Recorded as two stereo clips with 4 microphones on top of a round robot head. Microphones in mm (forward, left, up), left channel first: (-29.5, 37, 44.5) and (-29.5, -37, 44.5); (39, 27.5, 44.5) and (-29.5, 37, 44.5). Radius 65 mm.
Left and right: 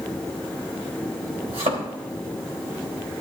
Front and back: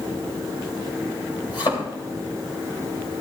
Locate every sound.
1.5 s a thud: 60° right, 3 m